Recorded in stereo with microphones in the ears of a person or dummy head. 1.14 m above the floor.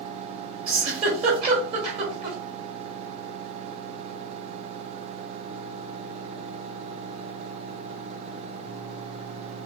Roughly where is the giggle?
Right.